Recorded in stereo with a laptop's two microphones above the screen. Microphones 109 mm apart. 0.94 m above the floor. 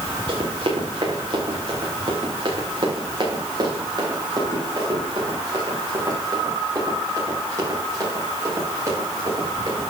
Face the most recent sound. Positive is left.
turn(degrees=-30)  # may be behind; listen again after turning